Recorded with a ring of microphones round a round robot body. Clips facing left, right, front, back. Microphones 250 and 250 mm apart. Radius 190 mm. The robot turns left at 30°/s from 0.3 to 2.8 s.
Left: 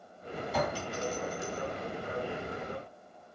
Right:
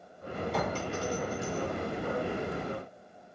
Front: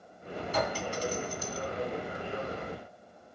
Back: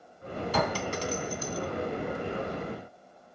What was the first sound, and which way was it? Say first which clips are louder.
A clink: left 1 dB, back 2 dB; straight behind.